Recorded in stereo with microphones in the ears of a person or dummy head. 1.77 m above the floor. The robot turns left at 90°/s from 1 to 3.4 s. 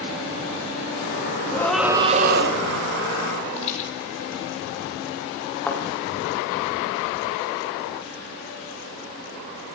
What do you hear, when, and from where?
1.5 s a scream: 20° left, 3 m; by 2.6 s 75° right, 3 m
3.6 s a rattle: 35° left (ahead or behind), 6 m
5.7 s a thud: 10° left (ahead or behind), 4 m